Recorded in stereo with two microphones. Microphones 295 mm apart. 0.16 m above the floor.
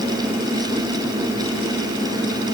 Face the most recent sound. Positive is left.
No sound to turn to.